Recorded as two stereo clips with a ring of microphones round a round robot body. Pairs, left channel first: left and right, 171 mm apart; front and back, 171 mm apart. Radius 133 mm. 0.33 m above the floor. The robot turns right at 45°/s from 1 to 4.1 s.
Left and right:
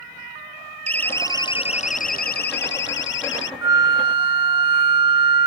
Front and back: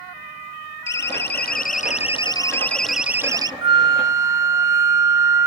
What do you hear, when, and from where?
0.9 s a siren: 10° left; by 3.5 s 115° left
3.6 s a flute: 145° right; by 5.5 s 125° right